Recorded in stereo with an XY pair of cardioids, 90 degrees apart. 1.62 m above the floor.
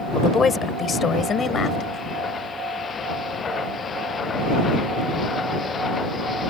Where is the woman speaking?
40° left; by 2.1 s 60° left.